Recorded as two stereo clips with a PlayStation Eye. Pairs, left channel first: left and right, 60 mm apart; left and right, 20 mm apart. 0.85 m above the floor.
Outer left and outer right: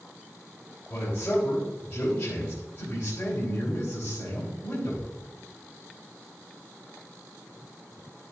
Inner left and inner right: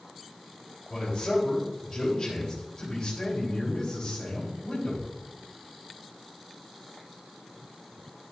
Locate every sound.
0.9 s a man speaking: 35° left (ahead or behind), 4 m